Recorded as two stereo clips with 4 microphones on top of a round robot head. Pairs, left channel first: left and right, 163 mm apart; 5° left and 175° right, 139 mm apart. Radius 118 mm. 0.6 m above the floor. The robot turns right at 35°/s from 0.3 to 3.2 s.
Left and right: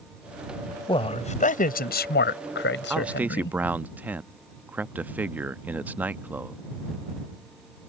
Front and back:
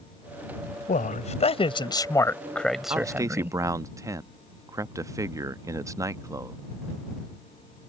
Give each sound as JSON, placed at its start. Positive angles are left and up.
{"t": 0.9, "sound": "a man speaking", "azimuth_deg": 30}
{"t": 2.9, "sound": "a man speaking", "azimuth_deg": -165}